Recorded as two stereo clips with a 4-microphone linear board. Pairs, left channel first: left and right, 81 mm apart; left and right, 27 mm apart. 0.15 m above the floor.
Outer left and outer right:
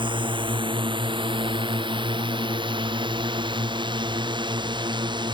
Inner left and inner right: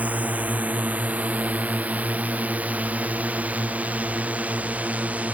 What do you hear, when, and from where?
0.0 s a drone: 80° right; by 5.3 s 65° right (ahead or behind)